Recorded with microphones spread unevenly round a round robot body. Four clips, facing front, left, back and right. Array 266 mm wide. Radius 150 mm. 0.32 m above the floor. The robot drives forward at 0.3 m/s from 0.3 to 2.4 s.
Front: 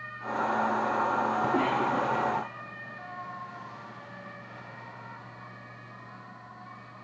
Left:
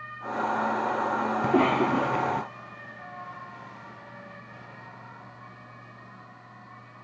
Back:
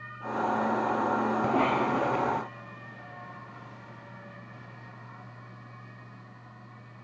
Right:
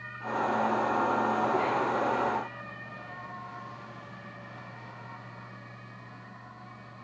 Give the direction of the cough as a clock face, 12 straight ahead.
9 o'clock.